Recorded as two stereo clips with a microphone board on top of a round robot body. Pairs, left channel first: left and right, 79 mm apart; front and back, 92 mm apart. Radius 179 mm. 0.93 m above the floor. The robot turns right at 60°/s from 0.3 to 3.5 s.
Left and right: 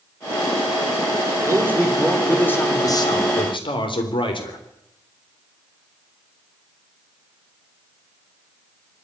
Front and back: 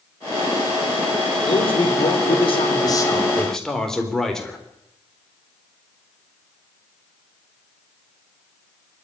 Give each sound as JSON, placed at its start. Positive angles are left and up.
{"t": 1.5, "sound": "a man speaking", "azimuth_deg": -35, "distance_m": 3.5}